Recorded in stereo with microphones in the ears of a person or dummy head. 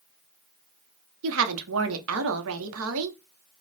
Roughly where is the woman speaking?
Right.